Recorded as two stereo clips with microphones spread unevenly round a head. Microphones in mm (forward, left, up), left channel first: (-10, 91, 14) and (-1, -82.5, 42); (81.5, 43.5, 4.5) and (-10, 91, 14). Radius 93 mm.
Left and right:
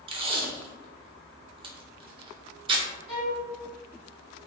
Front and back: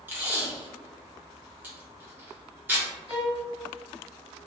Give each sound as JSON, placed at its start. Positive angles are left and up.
{"t": 0.1, "sound": "tape being pulled", "azimuth_deg": -140, "distance_m": 0.6}
{"t": 3.1, "sound": "a violin", "azimuth_deg": 155, "distance_m": 1.6}